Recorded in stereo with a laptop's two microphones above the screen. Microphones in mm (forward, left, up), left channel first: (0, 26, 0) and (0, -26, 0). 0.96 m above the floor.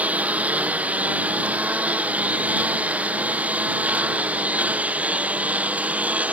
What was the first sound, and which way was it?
A lawn mower, 30° right (ahead or behind).